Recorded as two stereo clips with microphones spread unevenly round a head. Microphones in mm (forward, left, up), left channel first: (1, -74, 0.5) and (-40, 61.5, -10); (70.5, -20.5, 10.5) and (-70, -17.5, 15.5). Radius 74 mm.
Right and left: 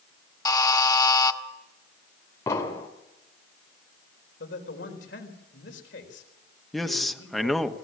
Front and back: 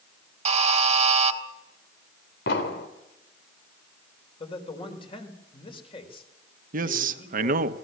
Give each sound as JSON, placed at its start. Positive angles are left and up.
{"t": 0.5, "sound": "a buzzer", "azimuth_deg": -135, "distance_m": 1.6}
{"t": 2.5, "sound": "an explosion", "azimuth_deg": 0, "distance_m": 2.5}
{"t": 4.4, "sound": "a man speaking", "azimuth_deg": -55, "distance_m": 4.0}
{"t": 6.7, "sound": "a man speaking", "azimuth_deg": -165, "distance_m": 1.3}